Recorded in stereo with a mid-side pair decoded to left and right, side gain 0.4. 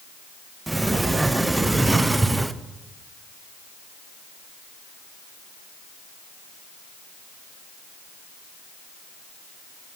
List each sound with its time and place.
0.7 s a sliding door: 20° right, 0.8 m